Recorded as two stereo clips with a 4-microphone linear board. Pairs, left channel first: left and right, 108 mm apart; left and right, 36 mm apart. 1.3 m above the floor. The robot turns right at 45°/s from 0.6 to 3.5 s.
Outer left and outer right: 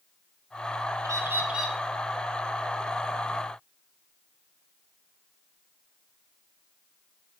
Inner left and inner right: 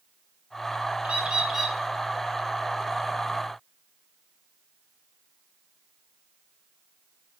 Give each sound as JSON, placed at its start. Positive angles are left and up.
{"t": 1.0, "sound": "a bird", "azimuth_deg": -30, "distance_m": 0.5}